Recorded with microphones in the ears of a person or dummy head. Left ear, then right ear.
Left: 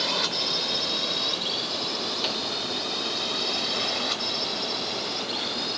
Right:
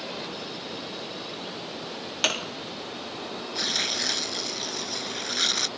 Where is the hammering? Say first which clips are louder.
Even; 40° right (ahead or behind).